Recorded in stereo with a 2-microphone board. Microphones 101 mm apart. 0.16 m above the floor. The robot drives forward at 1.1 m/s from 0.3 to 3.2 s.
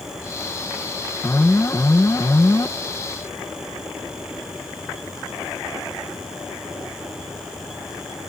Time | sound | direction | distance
1.2 | an alarm | 25° left (ahead or behind) | ?